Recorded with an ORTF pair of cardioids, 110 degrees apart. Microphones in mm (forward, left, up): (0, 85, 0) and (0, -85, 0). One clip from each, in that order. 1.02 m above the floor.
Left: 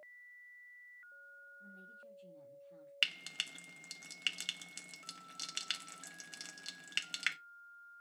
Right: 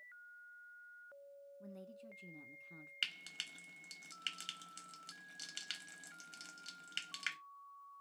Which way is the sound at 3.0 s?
25° left.